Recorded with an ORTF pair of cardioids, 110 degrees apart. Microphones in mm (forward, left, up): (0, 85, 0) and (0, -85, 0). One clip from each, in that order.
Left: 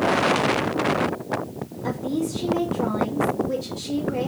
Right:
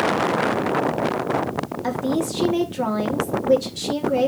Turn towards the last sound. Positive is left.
turn(degrees=-60)